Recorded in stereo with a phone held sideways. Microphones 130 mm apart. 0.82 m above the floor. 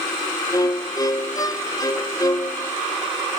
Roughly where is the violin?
Left.